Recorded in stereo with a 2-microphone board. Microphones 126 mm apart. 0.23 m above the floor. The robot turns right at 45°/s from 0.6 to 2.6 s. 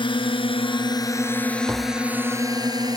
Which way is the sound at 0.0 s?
40° left (ahead or behind).